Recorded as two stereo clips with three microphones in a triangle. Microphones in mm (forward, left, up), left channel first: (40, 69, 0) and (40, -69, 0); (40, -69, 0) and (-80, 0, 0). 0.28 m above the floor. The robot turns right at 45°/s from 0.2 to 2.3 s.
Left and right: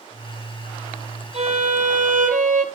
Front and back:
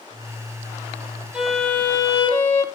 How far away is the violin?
About 4 m.